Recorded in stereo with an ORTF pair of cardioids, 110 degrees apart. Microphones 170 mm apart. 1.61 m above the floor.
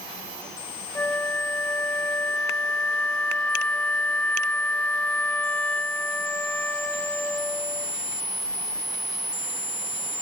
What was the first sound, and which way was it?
A flute, 10° left.